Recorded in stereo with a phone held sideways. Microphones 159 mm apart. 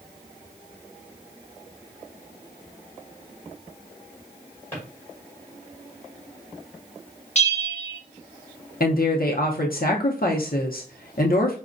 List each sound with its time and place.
4.7 s a drawer: 15° left (ahead or behind), 2 m
7.3 s a bell: 45° left (ahead or behind), 0.7 m
8.8 s a woman speaking: 70° left (ahead or behind), 0.6 m